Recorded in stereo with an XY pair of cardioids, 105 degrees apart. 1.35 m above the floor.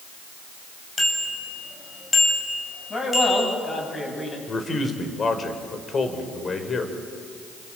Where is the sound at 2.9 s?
30° left, 9.5 m.